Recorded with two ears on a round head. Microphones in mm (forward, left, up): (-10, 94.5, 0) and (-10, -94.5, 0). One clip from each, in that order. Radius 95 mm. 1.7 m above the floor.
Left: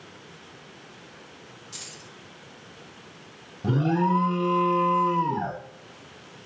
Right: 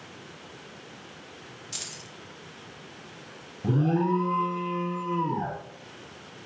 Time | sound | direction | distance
1.7 | keys jangling | 20° right (ahead or behind) | 1.2 m
3.6 | an alarm | 45° left (ahead or behind) | 0.8 m